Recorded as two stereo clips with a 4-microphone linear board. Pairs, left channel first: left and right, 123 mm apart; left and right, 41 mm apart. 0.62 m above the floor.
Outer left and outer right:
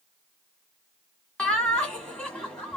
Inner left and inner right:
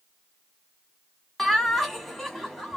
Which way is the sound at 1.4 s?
5° left (ahead or behind).